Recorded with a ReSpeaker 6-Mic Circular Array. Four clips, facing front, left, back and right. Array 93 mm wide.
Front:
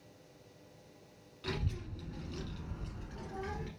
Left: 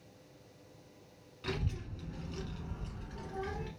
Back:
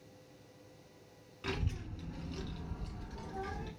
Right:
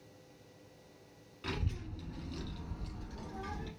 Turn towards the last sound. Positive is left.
turn(degrees=50)